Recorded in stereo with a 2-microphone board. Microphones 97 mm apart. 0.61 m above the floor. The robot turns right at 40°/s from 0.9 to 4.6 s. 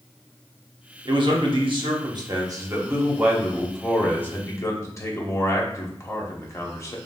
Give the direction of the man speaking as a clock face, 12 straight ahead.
3 o'clock.